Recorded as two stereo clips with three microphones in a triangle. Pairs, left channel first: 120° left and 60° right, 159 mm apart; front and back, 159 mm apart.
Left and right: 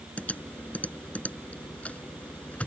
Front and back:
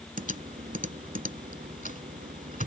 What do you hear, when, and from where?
0.2 s typing on a keyboard: 160° right